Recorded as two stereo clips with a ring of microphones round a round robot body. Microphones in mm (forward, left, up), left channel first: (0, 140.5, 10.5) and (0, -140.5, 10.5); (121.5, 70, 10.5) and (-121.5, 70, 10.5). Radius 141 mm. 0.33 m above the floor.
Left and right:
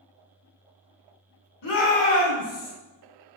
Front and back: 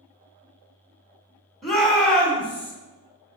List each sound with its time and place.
1.6 s a shout: 90° left, 3.5 m; by 2.7 s 80° left, 4 m